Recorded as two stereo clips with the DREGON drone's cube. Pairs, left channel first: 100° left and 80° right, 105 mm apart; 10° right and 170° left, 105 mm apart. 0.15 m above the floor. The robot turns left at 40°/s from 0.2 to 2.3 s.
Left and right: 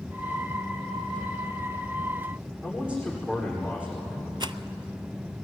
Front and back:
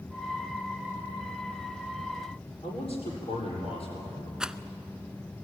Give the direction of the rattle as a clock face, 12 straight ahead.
4 o'clock.